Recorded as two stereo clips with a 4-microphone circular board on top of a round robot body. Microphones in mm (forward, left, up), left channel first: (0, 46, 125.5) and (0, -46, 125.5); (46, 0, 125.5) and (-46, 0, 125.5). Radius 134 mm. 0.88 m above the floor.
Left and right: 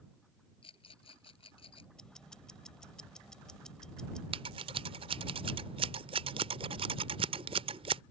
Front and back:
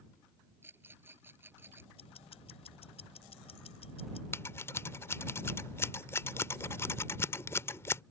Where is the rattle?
110° left.